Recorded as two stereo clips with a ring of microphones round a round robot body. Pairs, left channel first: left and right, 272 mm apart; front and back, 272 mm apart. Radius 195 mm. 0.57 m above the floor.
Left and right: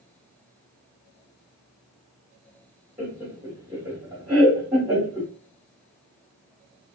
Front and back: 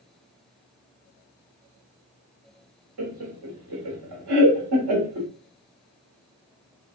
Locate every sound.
3.0 s laughter: 170° right, 1.2 m